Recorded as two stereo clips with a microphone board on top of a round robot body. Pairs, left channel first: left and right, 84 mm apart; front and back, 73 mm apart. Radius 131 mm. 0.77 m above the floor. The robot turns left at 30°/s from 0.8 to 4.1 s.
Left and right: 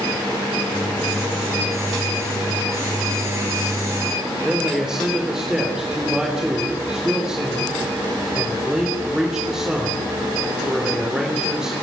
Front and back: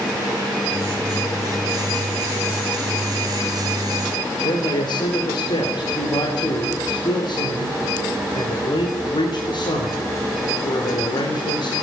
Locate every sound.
4.4 s a man speaking: 5° right, 3.5 m